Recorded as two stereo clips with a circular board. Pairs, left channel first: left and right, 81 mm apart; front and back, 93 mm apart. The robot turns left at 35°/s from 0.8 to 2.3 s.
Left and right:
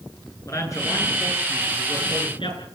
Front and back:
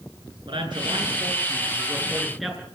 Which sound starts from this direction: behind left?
A man speaking, at 0.5 s.